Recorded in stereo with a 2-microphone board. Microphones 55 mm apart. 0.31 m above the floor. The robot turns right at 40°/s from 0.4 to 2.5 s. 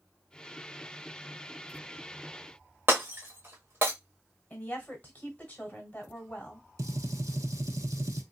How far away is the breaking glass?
About 1.3 m.